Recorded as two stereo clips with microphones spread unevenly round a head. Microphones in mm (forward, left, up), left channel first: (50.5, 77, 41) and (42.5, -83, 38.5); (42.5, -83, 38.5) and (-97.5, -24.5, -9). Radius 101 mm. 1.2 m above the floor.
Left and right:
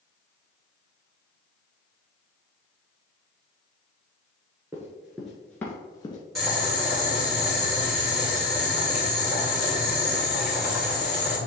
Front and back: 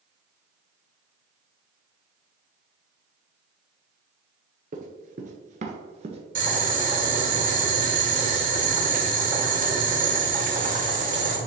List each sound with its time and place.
4.7 s running footsteps: 170° right, 1.5 m; by 6.2 s 105° left, 1.2 m
6.3 s boiling: 175° left, 2.5 m